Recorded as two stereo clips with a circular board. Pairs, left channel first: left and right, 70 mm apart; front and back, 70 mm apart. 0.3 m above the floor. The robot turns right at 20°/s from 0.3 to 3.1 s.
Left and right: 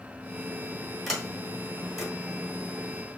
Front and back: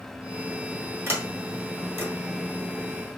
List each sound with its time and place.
1.1 s a sliding door: 175° right, 1.5 m; by 2.1 s 155° right, 1.5 m